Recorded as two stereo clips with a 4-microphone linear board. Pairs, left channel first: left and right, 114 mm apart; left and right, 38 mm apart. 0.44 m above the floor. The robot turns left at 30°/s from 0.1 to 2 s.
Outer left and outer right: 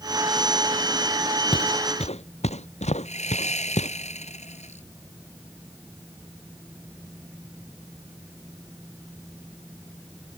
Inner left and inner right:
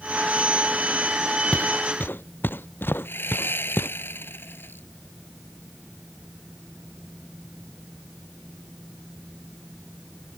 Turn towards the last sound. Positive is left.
turn(degrees=80)